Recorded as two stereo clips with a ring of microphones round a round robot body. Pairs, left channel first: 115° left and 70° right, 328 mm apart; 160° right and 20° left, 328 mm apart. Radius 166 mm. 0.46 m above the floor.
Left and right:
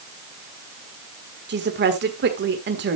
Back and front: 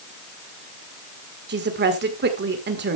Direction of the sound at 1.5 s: 25° right.